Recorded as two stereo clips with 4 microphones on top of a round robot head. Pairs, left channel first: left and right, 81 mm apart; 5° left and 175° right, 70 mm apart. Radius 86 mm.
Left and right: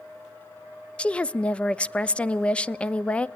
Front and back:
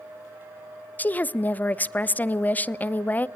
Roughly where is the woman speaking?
Ahead left.